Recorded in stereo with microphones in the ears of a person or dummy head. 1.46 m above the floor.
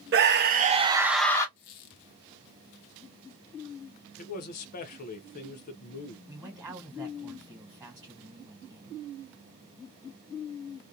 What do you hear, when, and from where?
0.1 s a scream: 55° right (ahead or behind), 0.8 m; by 1.5 s 15° left (ahead or behind), 0.5 m
1.6 s a squeak: 55° left (ahead or behind), 0.6 m
4.2 s a man speaking: 45° left (ahead or behind), 0.6 m
6.3 s a man speaking: 10° right (ahead or behind), 1.3 m